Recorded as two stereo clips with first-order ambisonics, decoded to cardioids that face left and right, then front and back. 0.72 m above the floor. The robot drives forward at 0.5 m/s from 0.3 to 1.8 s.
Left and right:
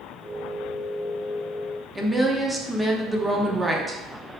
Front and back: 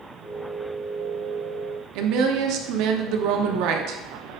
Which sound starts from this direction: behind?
A woman speaking, at 1.9 s.